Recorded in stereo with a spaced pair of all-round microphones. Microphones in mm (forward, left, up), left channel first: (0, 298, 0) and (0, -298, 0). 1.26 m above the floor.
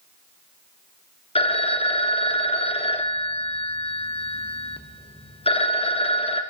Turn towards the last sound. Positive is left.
turn(degrees=10)  # may be behind; listen again after turning